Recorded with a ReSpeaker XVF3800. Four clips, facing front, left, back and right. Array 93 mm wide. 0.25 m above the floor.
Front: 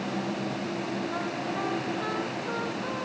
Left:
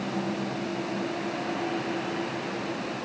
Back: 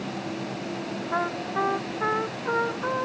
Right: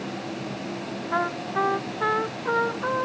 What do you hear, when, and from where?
1.1 s a trumpet: 120° right